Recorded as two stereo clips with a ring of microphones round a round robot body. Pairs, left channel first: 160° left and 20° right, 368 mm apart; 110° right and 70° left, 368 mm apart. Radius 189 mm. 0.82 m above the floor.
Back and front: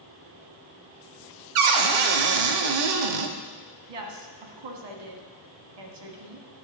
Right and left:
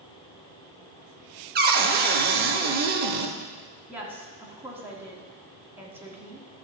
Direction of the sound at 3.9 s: 20° right.